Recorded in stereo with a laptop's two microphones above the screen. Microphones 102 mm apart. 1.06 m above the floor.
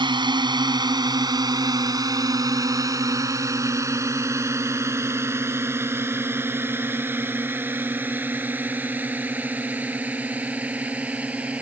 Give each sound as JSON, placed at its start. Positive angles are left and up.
{"t": 0.0, "sound": "a drone", "side_deg": -50}